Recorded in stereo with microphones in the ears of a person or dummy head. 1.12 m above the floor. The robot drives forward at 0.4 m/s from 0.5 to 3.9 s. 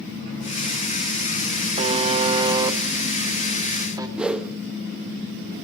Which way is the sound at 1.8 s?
35° right (ahead or behind).